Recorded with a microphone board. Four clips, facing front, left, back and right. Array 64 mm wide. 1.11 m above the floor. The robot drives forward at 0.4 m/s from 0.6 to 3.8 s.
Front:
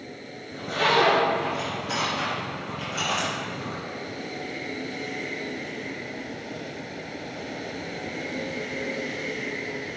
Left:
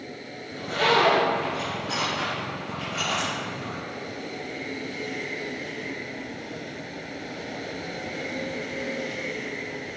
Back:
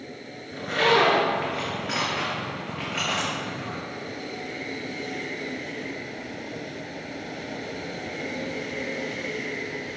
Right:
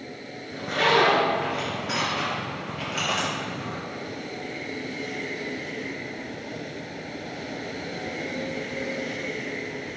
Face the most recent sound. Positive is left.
turn(degrees=-160)